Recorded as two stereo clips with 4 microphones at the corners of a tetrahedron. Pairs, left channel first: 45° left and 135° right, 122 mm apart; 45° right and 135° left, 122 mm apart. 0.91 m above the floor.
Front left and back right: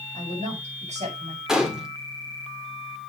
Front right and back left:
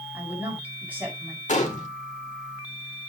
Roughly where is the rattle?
No rattle in this recording.